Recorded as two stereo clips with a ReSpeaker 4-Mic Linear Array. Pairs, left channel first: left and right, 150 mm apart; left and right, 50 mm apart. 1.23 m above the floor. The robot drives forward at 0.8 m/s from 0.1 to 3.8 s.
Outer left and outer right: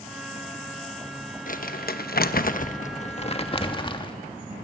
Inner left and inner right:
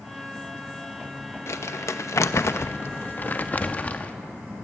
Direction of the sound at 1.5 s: 65° left (ahead or behind).